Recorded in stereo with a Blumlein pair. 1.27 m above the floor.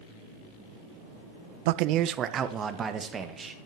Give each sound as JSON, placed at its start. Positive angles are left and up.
{"t": 1.6, "sound": "a man speaking", "azimuth_deg": -50, "distance_m": 0.5}